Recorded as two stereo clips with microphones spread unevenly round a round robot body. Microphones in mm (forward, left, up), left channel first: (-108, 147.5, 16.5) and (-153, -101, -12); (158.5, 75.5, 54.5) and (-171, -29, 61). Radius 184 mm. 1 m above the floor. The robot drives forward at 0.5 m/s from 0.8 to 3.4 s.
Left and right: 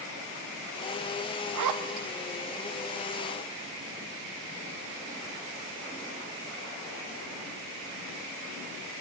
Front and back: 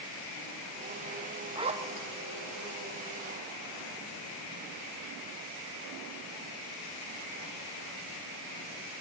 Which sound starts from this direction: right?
A zipper, at 1.6 s.